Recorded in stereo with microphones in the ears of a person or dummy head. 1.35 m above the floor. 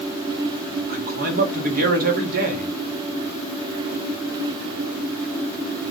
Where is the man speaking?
45° right (ahead or behind), 0.7 m.